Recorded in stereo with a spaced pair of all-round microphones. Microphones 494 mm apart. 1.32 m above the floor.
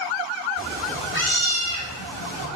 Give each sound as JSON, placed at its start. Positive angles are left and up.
{"t": 0.6, "sound": "a cat meowing", "side_deg": -20, "distance_m": 1.4}